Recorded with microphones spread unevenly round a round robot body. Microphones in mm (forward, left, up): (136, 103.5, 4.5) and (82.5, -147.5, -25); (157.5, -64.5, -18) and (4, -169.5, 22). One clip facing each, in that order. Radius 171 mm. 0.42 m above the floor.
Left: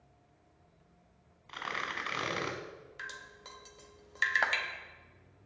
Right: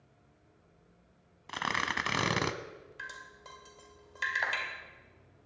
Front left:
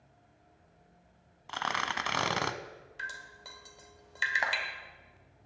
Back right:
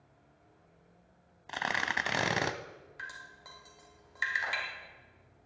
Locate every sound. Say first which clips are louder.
1.5 s tearing paper: right 5 dB, even; 70° right, 1.0 m
3.0 s dripping: left 1 dB, front left 3 dB; 20° left, 1.7 m
4.4 s a clap: left 3 dB, front left 6 dB; 50° left, 1.8 m